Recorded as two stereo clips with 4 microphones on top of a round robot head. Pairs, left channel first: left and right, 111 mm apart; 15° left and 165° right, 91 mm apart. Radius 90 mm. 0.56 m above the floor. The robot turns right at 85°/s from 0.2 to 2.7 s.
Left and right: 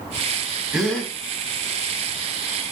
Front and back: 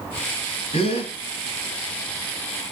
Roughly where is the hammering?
No hammering in this recording.